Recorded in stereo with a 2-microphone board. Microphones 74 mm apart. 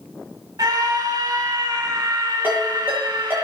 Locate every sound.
0.6 s a scream: 70° right (ahead or behind), 4 m
2.4 s a ringtone: 25° right (ahead or behind), 9 m